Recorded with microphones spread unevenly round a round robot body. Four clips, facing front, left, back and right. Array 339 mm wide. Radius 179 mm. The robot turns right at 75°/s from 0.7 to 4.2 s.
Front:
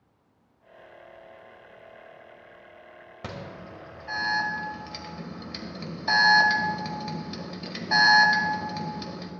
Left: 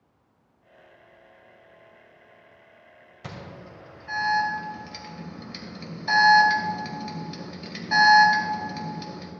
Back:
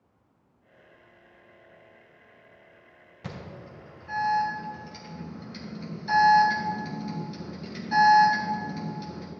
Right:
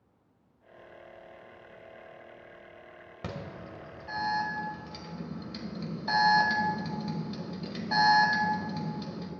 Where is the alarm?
65° right, 2 m; by 9.3 s 5° left, 2 m.